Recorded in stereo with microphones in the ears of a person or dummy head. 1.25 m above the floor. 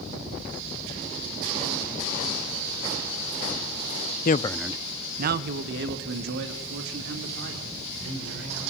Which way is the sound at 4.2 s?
50° left (ahead or behind).